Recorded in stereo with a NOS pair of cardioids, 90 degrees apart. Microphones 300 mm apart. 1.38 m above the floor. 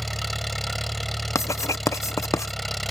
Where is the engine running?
Straight ahead.